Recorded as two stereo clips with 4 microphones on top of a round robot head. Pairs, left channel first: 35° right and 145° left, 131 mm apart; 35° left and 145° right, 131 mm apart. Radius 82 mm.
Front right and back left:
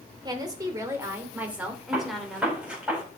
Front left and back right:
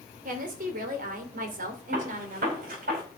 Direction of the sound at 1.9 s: 135° right.